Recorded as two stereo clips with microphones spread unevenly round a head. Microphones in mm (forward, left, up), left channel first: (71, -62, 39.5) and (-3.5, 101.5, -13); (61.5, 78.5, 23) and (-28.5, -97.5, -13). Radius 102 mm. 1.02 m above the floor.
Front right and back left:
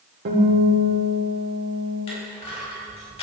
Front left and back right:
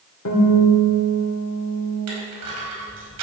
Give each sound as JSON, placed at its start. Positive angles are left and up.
{"t": 0.2, "sound": "a guitar", "azimuth_deg": 90, "distance_m": 3.5}
{"t": 2.1, "sound": "crushing", "azimuth_deg": -130, "distance_m": 4.5}